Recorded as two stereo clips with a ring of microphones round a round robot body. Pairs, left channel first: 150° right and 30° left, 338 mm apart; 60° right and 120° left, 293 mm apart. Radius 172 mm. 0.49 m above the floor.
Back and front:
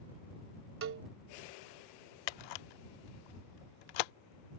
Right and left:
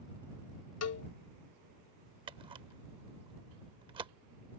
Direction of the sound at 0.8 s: 25° right.